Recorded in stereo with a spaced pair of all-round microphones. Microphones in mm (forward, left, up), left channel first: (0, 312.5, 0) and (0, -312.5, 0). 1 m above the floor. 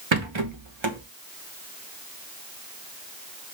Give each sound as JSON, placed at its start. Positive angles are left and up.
{"t": 0.1, "sound": "a rattle", "side_deg": -50, "distance_m": 1.2}